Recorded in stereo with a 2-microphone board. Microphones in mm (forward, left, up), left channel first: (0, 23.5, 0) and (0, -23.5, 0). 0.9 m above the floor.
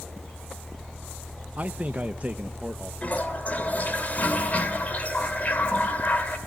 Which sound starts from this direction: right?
A man speaking, at 1.6 s.